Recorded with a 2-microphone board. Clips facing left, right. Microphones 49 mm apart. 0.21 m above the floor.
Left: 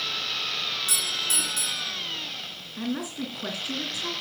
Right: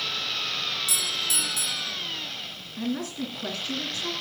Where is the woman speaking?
15° left (ahead or behind), 2.5 m.